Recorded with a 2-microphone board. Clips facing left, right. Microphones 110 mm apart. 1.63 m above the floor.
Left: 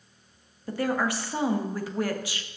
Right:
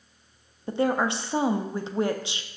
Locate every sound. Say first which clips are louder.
0.7 s a woman speaking: right 3 dB; 25° right (ahead or behind), 0.5 m